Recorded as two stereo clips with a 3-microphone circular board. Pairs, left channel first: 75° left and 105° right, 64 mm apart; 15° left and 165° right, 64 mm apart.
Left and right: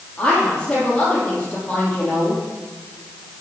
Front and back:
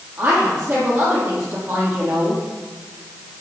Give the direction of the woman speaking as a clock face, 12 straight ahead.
7 o'clock.